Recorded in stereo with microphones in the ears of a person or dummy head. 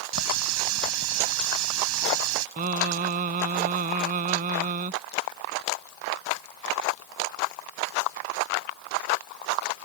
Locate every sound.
0.1 s a running tap: 80° right
2.6 s singing: 40° right (ahead or behind)